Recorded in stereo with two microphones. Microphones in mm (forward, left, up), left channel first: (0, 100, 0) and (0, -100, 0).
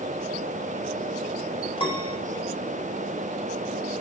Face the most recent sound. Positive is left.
turn(degrees=25)  # may be behind; listen again after turning